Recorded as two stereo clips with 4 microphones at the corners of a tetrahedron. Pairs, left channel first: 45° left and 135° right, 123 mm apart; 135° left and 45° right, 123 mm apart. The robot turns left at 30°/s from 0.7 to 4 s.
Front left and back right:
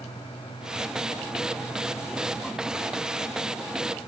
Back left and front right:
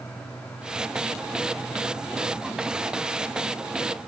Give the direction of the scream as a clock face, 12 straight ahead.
No scream in this recording.